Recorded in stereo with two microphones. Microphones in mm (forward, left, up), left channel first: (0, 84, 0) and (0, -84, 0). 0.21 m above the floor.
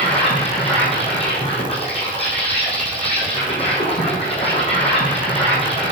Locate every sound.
0.0 s an insect: 35° left (ahead or behind), 2.5 m